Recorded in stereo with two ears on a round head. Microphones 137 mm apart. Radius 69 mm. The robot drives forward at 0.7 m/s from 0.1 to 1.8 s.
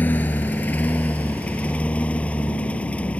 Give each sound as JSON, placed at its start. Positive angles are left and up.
{"t": 0.0, "sound": "a lawn mower", "side_deg": 15}